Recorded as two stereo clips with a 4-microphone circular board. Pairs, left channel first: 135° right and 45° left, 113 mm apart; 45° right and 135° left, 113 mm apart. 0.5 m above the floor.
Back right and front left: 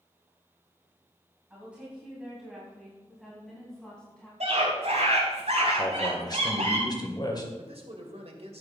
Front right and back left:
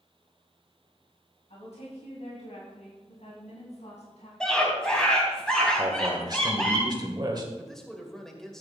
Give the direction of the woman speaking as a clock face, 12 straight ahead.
1 o'clock.